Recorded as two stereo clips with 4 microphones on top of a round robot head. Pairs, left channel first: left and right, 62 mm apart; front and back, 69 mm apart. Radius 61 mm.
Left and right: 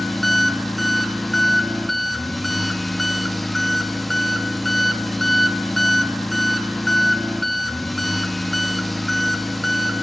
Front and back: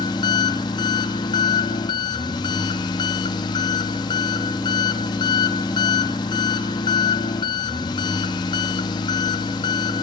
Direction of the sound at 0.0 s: Straight ahead.